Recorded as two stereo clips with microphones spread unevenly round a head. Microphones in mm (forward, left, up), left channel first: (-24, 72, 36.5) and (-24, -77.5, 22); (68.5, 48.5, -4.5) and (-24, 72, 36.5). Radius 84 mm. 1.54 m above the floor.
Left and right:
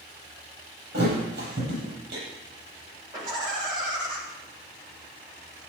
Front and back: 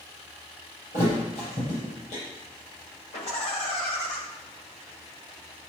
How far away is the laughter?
About 7 m.